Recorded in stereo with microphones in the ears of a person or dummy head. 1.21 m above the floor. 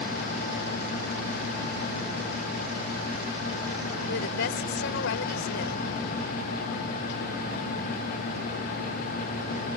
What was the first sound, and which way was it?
A woman speaking, 60° left (ahead or behind).